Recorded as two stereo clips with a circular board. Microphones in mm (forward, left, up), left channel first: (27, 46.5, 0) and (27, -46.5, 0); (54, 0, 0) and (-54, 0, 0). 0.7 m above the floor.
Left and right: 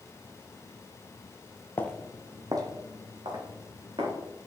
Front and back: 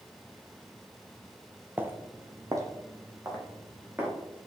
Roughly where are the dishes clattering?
No dishes clattering in this recording.